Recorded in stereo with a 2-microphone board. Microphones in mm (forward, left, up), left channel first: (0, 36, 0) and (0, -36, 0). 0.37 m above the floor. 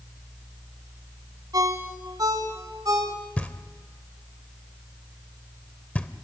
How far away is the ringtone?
About 2 m.